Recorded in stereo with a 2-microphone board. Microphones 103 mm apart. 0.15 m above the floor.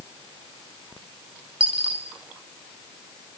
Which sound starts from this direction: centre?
A dropped coin, at 1.6 s.